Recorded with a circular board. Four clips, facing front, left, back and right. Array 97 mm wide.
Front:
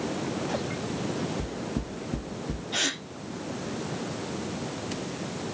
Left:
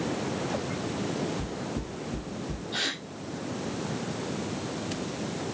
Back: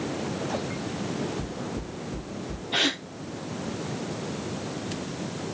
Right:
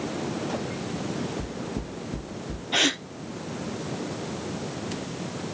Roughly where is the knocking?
Ahead.